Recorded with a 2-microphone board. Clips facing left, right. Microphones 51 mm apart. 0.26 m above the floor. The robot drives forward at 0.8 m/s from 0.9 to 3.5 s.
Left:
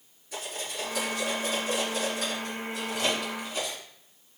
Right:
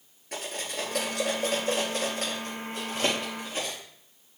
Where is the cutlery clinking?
65° right (ahead or behind), 3 m; by 3.8 s 40° right (ahead or behind), 4.5 m.